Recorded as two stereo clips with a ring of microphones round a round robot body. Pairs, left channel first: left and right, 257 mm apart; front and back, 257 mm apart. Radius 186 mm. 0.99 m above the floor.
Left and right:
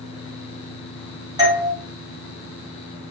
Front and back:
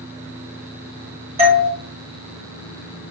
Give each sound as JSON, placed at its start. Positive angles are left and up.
{"t": 1.4, "sound": "a doorbell", "azimuth_deg": -145, "distance_m": 1.4}